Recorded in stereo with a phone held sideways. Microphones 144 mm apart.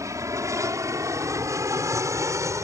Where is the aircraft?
20° right (ahead or behind).